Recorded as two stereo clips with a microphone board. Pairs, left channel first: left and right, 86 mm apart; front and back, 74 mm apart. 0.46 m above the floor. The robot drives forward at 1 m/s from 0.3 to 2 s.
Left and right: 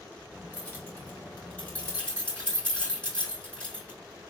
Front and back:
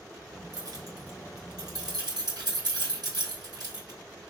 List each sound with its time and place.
0.5 s keys jangling: 155° left, 2 m; by 4.3 s 165° left, 3.5 m